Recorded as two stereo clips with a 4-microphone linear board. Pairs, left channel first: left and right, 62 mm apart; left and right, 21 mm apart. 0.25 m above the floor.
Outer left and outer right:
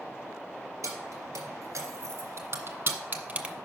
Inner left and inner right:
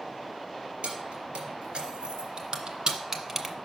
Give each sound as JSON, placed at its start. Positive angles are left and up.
{"t": 0.8, "sound": "keys jangling", "side_deg": -65, "distance_m": 3.0}